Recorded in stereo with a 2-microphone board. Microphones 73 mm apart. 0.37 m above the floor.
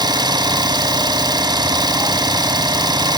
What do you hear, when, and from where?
0.0 s an engine running: 70° right (ahead or behind), 0.7 m